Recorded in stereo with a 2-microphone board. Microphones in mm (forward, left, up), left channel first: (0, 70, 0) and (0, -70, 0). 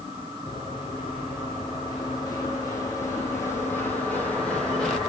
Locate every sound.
0.5 s running footsteps: 40° left (ahead or behind), 5 m; by 5.0 s 5° left (ahead or behind), 3 m